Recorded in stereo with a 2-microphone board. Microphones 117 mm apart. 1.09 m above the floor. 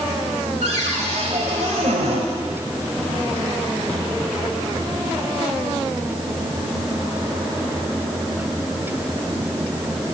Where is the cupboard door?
75° right (ahead or behind), 2.5 m.